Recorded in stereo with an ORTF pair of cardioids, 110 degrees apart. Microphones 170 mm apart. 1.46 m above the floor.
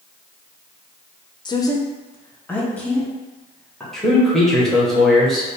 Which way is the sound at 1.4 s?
25° left.